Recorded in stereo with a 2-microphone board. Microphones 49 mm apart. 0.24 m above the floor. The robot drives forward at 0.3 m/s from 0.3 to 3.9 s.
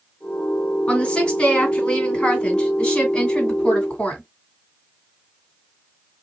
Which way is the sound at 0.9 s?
30° left (ahead or behind).